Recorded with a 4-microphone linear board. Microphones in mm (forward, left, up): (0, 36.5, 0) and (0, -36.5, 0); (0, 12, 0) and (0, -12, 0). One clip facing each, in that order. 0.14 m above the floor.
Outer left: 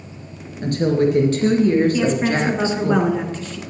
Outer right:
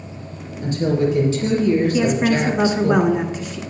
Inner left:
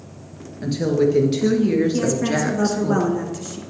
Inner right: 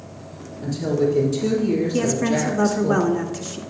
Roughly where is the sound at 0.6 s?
Left.